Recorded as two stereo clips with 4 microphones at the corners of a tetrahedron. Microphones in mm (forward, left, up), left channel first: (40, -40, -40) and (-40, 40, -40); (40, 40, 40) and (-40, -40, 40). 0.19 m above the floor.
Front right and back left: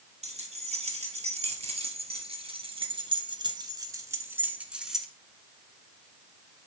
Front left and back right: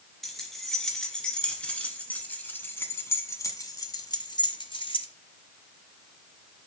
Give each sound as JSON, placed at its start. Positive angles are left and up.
{"t": 0.2, "sound": "keys jangling", "azimuth_deg": 135, "distance_m": 3.0}